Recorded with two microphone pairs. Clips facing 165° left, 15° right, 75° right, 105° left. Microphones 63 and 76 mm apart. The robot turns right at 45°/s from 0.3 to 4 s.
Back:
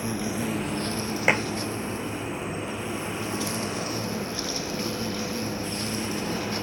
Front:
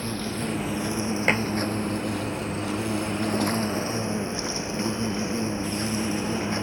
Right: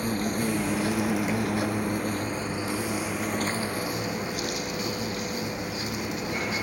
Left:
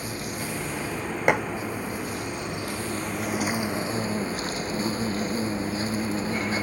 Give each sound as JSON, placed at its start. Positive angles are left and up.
{"t": 0.0, "sound": "an insect", "azimuth_deg": -115}
{"t": 1.3, "sound": "dishes clattering", "azimuth_deg": 85}